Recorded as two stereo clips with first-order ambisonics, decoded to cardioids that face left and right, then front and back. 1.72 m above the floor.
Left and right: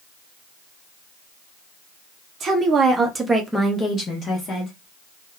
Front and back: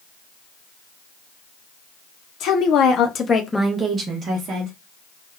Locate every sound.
2.4 s a woman speaking: 30° right, 0.8 m; by 4.7 s 145° left, 0.8 m